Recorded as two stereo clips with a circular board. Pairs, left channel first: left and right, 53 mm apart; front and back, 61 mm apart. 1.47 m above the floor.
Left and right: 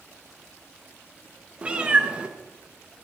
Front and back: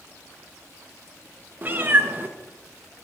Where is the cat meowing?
145° right, 0.8 m.